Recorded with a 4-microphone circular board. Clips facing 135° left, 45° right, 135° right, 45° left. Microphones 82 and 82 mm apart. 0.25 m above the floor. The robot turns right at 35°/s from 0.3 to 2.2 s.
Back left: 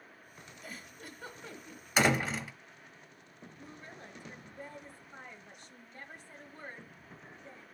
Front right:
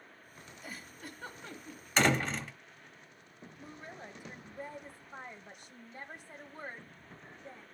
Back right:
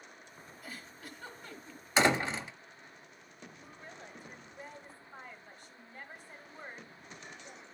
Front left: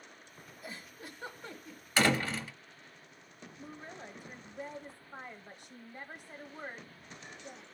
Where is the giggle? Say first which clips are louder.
Front right 1 dB, front left 2 dB; 30° left, 1.4 m; by 1.9 s 75° left, 1.4 m.